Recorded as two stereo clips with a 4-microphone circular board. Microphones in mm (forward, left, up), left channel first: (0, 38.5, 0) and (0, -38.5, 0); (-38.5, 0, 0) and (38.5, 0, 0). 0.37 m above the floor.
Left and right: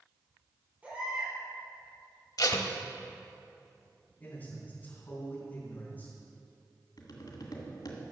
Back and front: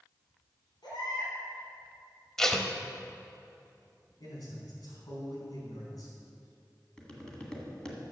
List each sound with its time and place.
0.8 s a baby crying: 160° right, 4.5 m
2.4 s tape being pulled: 95° left, 0.8 m
4.2 s a man speaking: 155° left, 4 m
7.0 s tapping: 100° left, 1.8 m